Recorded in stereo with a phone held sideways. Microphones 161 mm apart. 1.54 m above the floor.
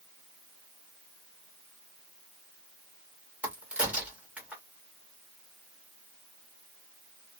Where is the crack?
5° right (ahead or behind), 1.2 m.